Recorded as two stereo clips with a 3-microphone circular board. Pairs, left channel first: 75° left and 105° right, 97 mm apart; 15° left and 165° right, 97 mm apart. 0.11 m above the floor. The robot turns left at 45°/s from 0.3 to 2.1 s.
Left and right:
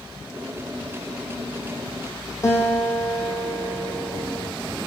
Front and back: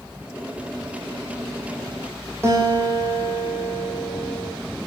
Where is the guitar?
135° left, 1.3 m.